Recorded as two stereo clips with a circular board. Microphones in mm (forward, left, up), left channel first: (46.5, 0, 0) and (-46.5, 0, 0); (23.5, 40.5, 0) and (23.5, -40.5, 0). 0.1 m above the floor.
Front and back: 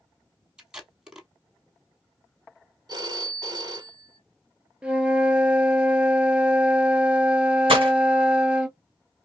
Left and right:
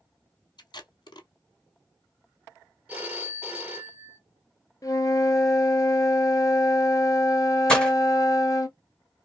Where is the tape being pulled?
100° left, 0.9 m.